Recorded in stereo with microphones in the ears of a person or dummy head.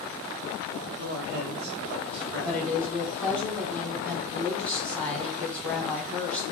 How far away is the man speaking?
About 1.0 m.